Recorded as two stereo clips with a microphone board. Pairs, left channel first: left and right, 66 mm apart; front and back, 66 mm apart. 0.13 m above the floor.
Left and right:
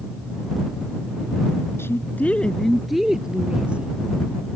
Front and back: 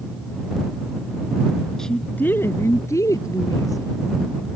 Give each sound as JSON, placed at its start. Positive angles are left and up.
{"t": 1.8, "sound": "a woman speaking", "azimuth_deg": 80}